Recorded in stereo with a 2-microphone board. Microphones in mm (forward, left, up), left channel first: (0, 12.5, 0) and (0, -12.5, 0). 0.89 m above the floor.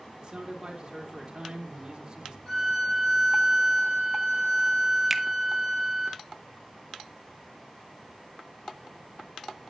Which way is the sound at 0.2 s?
35° right (ahead or behind).